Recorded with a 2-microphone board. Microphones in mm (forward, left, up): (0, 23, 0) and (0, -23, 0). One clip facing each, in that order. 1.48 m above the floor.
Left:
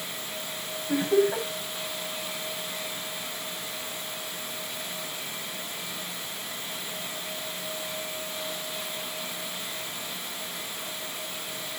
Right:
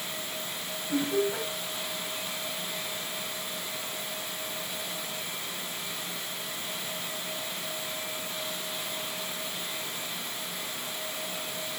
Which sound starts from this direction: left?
Laughter, at 0.9 s.